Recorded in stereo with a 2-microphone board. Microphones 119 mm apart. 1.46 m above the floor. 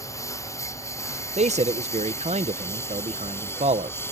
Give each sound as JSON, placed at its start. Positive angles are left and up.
{"t": 0.0, "sound": "a lawn mower", "side_deg": 25}
{"t": 1.4, "sound": "a man speaking", "side_deg": -70}